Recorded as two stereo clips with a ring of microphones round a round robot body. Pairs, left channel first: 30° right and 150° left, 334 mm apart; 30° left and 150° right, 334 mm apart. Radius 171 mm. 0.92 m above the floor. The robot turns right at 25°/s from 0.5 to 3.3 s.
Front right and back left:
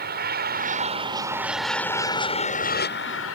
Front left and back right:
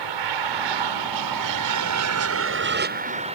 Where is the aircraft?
150° right; by 3.4 s 80° right.